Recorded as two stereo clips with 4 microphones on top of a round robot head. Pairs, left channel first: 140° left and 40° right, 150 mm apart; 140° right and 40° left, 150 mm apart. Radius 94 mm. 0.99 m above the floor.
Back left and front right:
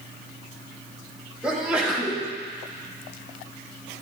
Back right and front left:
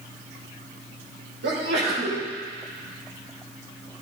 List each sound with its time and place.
1.4 s a sneeze: 45° left, 3 m